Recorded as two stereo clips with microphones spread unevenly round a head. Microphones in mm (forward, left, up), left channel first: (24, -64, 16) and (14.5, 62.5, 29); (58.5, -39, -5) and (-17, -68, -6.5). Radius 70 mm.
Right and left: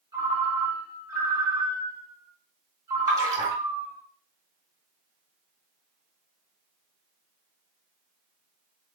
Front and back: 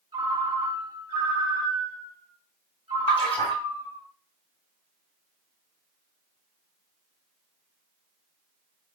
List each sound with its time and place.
0.1 s a ringtone: 160° left, 1.2 m
3.1 s a splash: 35° left, 1.8 m